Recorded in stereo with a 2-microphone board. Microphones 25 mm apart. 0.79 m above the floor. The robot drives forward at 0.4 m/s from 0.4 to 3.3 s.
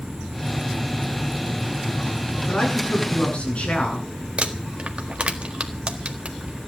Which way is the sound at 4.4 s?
50° right (ahead or behind).